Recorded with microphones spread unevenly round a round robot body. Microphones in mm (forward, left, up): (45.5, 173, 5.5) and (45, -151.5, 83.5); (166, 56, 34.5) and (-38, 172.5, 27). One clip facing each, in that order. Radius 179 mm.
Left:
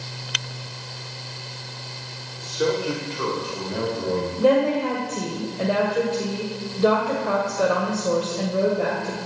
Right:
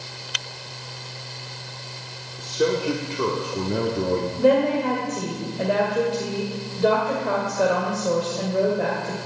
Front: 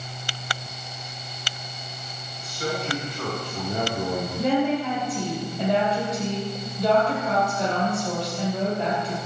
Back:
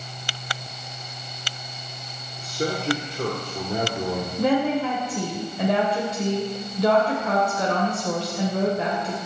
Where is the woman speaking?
170° left, 2.5 m.